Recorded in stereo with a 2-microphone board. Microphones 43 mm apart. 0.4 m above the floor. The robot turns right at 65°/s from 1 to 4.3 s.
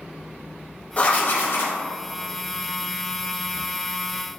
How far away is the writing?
About 0.8 m.